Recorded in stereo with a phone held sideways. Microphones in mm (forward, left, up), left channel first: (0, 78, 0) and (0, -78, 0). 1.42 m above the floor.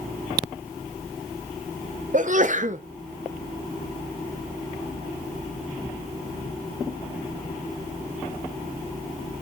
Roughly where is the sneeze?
Right.